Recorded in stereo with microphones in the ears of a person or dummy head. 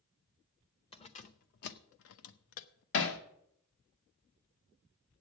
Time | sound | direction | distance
0.9 | keys jangling | 30° left (ahead or behind) | 0.8 m
2.9 | hammering | 70° left (ahead or behind) | 1.3 m